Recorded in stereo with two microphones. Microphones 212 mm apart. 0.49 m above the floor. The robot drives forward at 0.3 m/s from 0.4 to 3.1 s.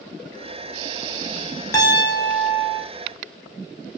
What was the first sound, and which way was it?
A piano, 15° left (ahead or behind).